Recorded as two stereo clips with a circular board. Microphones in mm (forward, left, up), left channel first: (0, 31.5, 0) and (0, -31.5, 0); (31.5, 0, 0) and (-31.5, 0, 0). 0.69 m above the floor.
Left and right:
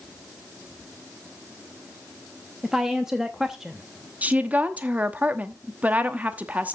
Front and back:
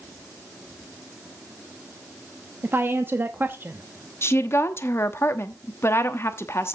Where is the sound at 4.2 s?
30° right, 1.0 m.